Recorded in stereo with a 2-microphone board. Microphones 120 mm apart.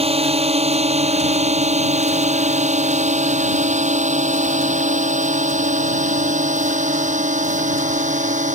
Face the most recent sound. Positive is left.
turn(degrees=-75)  # may be behind; listen again after turning